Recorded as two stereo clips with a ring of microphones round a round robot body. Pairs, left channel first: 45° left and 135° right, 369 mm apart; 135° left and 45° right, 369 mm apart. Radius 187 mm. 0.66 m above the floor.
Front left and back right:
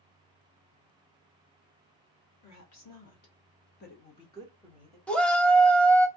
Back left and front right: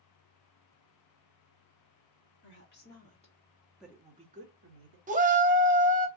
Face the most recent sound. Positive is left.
turn(degrees=-35)